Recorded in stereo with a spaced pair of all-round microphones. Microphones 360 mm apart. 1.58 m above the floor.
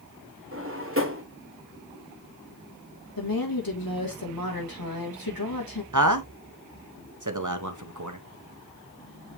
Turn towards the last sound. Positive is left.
turn(degrees=-60)  # may be behind; listen again after turning